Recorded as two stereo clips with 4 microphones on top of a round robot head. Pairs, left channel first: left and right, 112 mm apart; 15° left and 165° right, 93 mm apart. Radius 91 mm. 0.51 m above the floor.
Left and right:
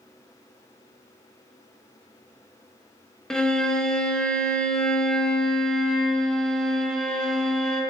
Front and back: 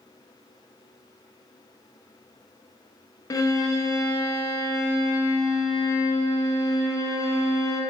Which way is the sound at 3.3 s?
10° left.